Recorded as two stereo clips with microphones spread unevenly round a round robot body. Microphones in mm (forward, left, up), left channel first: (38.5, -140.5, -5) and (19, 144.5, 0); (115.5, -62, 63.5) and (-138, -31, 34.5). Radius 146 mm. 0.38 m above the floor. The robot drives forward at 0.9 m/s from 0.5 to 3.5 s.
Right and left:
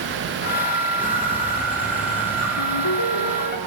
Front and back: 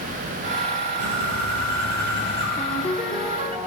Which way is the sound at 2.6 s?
100° right.